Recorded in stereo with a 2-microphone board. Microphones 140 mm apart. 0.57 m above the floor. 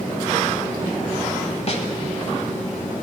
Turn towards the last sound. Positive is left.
turn(degrees=50)  # may be behind; listen again after turning